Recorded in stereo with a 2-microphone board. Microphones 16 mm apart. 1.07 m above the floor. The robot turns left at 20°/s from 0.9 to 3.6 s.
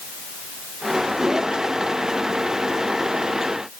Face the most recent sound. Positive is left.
No sound to turn to.